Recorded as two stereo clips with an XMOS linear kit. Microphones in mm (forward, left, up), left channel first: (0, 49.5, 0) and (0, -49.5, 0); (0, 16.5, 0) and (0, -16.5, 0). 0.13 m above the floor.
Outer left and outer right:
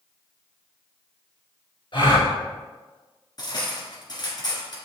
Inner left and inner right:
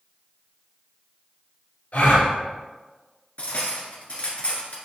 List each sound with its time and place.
1.9 s a gasp: 55° left (ahead or behind), 1.9 m
3.4 s cutlery clinking: 45° left (ahead or behind), 1.3 m